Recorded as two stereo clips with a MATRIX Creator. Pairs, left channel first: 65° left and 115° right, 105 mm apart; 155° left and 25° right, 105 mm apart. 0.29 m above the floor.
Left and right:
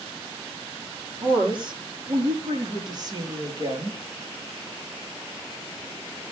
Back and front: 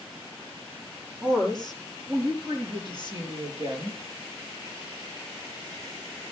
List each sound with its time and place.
1.2 s a woman speaking: 75° right, 6 m; by 4.0 s 60° right, 5 m